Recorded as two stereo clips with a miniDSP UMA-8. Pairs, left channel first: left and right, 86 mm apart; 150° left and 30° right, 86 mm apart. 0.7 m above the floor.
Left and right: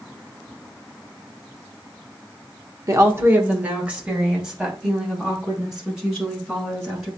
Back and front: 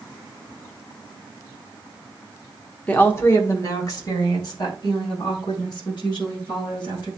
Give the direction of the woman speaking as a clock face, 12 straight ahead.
5 o'clock.